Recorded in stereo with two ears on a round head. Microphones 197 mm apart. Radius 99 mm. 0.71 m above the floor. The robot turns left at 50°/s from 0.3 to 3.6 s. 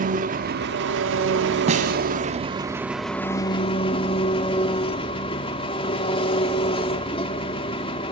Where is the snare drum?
30° right (ahead or behind), 2.5 m; by 2.0 s 45° right (ahead or behind), 2.5 m.